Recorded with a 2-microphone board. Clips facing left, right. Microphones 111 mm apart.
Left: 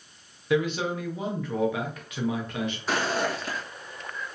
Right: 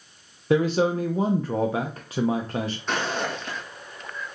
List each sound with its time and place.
0.5 s a man speaking: 35° right (ahead or behind), 0.6 m
2.9 s footsteps: 5° left (ahead or behind), 1.5 m